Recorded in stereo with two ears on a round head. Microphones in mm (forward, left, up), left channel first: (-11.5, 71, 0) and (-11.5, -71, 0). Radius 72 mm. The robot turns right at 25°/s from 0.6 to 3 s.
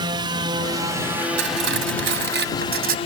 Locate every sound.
0.0 s a drone: 25° right (ahead or behind); by 3.1 s 35° left (ahead or behind)
1.4 s cutlery clinking: 95° right; by 3.0 s 55° right